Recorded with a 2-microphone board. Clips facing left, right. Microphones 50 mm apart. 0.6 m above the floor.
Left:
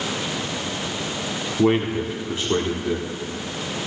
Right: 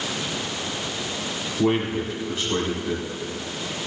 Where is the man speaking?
30° left (ahead or behind), 1.1 m.